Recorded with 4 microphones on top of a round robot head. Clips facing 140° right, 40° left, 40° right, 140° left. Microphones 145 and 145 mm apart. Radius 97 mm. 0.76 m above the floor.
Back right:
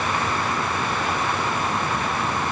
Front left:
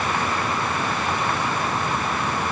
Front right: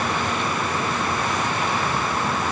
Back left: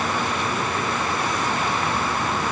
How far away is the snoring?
No snoring in this recording.